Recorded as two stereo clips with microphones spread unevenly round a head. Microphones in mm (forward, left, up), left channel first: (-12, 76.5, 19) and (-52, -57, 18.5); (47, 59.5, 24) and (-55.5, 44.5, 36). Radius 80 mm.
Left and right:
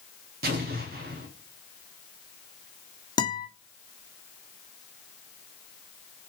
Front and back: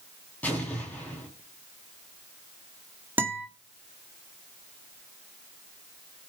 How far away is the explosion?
About 3.5 m.